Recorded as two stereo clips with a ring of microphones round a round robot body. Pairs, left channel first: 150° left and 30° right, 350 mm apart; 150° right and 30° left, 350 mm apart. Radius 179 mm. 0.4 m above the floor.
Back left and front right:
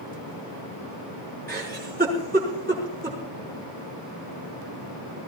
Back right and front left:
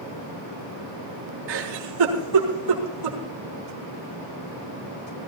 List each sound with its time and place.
1.5 s a giggle: 35° left, 3.5 m